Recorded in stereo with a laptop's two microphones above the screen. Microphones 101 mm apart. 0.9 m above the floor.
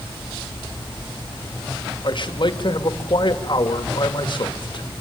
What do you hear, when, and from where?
2.0 s a man speaking: 55° left (ahead or behind), 1.8 m